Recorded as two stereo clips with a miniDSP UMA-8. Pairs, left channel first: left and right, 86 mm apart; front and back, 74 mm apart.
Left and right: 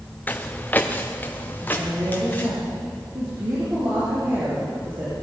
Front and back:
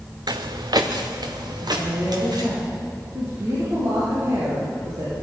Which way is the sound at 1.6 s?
135° right.